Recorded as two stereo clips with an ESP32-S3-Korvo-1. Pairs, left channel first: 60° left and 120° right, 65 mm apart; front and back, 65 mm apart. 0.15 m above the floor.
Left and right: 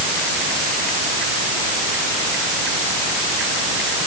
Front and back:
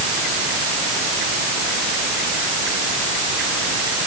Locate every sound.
Only background noise.